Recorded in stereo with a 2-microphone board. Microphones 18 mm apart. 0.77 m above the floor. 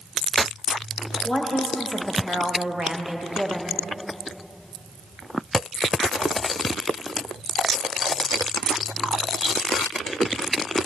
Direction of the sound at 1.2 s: 15° left (ahead or behind).